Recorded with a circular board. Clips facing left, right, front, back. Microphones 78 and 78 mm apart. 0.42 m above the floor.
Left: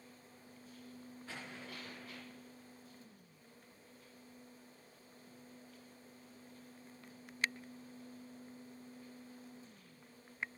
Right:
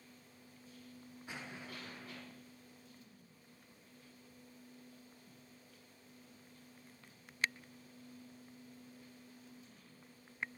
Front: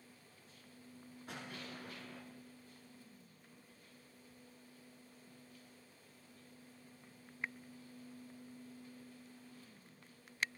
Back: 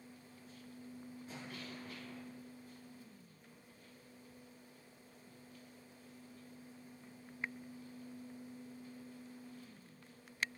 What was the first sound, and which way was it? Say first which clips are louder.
An explosion: right 2 dB, front 2 dB; 20° right.